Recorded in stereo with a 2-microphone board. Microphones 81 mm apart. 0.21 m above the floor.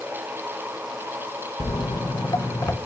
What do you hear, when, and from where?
1.6 s footsteps: 85° left, 1.5 m; by 2.8 s 30° left (ahead or behind), 1.8 m